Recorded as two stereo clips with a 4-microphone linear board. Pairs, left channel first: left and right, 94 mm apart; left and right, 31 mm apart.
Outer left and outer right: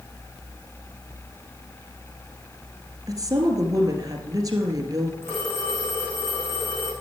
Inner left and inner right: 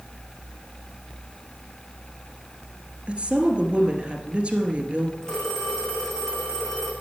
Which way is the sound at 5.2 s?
25° left (ahead or behind).